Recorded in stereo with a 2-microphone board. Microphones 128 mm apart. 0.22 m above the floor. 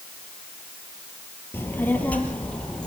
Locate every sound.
1.5 s a child speaking: 15° left (ahead or behind), 3 m; by 2.9 s 10° left (ahead or behind), 4 m